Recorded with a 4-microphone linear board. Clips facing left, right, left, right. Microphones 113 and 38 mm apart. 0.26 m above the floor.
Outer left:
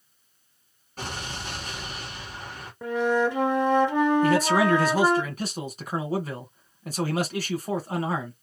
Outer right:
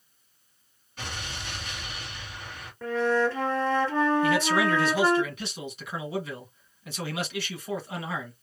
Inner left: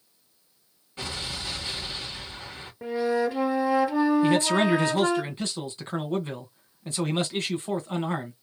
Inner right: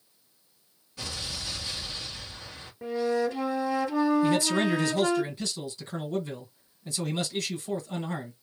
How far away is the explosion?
About 2.5 m.